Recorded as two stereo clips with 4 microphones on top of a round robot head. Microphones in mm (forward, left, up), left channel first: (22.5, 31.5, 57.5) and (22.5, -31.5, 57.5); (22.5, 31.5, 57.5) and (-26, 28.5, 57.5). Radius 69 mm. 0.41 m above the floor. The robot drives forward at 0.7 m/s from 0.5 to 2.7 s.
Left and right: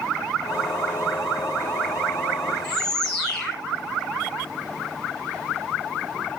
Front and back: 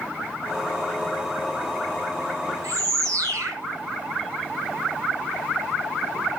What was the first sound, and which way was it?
A bird, 170° left.